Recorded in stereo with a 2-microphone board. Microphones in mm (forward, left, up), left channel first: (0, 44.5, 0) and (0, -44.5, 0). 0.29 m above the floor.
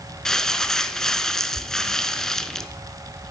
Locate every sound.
0.2 s crumpling: 5° left (ahead or behind), 0.6 m